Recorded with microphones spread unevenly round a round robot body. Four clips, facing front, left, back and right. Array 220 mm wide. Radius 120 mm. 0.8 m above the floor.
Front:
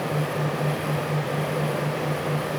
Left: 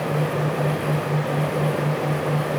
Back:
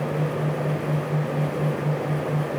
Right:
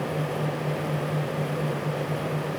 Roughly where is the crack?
No crack in this recording.